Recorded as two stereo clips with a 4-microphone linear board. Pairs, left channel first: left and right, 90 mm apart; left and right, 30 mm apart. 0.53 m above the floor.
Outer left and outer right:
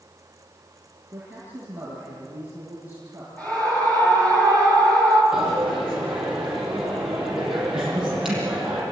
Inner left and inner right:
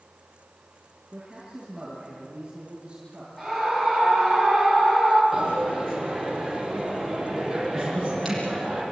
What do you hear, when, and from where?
1.1 s a man speaking: 20° right (ahead or behind), 7.5 m
3.4 s a scream: 15° left (ahead or behind), 9 m
5.3 s a dropped coin: 5° right (ahead or behind), 8 m